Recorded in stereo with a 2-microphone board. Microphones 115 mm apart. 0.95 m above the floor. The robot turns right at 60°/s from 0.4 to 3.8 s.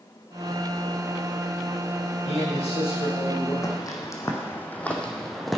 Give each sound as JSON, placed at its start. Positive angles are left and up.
{"t": 2.2, "sound": "a man speaking", "azimuth_deg": 70, "distance_m": 5.5}
{"t": 3.6, "sound": "footsteps", "side_deg": 30, "distance_m": 2.0}